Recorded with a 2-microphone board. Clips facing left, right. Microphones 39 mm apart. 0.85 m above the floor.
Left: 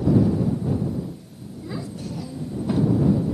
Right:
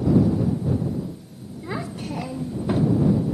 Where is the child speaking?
45° right (ahead or behind); by 2.9 s 10° right (ahead or behind).